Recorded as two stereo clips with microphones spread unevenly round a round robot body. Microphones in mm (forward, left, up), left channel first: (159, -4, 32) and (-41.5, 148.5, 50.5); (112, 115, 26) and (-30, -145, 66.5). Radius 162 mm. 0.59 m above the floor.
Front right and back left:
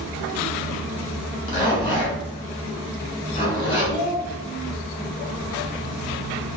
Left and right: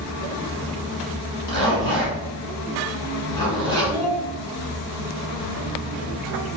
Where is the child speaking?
155° left, 1.0 m.